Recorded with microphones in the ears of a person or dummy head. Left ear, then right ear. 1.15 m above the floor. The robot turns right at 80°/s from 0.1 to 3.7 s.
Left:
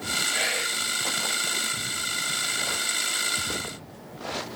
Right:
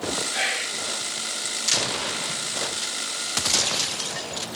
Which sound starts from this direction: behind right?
Whispering, at 0.3 s.